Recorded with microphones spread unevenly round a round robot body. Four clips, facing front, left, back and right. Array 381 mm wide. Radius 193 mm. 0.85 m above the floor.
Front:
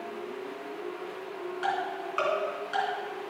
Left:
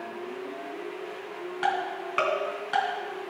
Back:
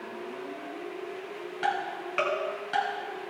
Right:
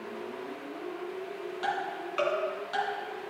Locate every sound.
1.6 s ticking: 130° left, 2.5 m